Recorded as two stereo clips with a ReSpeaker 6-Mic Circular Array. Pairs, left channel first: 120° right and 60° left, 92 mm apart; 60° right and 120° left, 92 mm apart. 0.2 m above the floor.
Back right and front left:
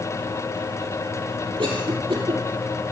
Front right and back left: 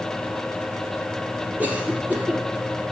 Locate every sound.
1.6 s a cough: 45° left, 6.5 m